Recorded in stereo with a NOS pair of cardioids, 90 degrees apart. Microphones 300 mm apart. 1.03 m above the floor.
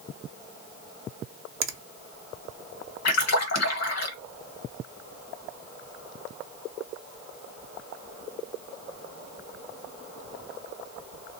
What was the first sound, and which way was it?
A finger snap, 40° right.